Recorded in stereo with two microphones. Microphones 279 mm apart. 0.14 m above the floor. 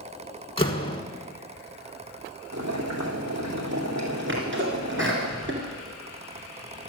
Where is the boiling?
70° right (ahead or behind), 2.5 m.